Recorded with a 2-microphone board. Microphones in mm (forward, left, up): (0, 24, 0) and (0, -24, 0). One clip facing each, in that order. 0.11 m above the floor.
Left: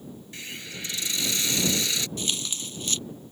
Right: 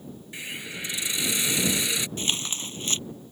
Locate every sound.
0.3 s a hiss: 20° right (ahead or behind)
2.2 s tearing paper: 35° right (ahead or behind)